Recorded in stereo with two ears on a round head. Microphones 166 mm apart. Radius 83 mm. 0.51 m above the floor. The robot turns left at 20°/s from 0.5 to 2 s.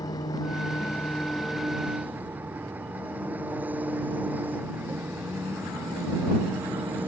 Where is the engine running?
20° left; by 7.1 s 10° right.